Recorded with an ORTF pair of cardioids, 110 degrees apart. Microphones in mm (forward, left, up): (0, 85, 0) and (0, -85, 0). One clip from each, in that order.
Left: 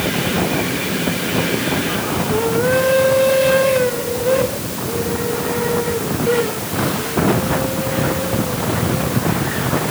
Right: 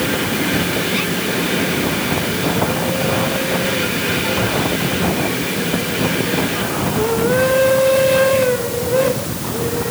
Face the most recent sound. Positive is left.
No sound to turn to.